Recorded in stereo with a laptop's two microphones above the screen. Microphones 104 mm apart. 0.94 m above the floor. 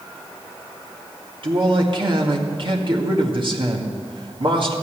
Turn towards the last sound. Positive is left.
turn(degrees=-55)  # may be behind; listen again after turning